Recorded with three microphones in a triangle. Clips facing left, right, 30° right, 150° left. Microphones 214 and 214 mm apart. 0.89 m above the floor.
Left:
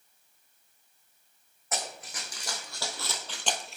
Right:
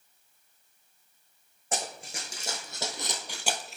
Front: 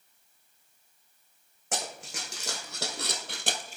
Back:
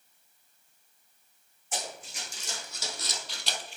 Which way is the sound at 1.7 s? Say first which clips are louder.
Right 2 dB, front 2 dB; 30° right.